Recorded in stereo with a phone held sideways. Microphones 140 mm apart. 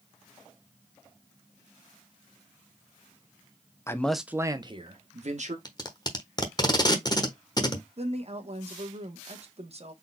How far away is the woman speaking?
About 1.2 m.